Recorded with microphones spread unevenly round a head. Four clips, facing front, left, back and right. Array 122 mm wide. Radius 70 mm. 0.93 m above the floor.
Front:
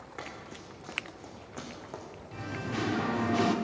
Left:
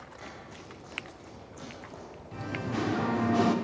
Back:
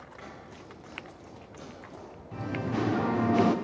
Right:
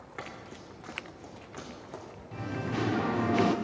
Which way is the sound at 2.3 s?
175° left.